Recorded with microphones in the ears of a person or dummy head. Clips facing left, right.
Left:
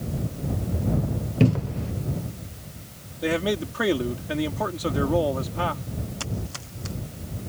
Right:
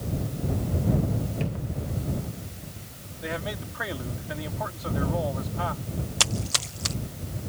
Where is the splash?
75° right (ahead or behind).